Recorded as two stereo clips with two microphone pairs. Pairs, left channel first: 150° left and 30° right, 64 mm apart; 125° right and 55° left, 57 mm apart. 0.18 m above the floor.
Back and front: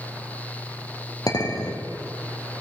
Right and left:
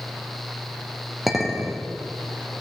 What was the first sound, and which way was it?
A clink, 145° left.